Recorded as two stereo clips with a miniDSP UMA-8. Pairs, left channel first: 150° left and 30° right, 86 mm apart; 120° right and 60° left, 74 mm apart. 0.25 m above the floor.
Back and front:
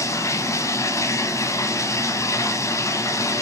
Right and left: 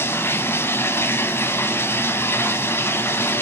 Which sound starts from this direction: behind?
Running water, at 0.0 s.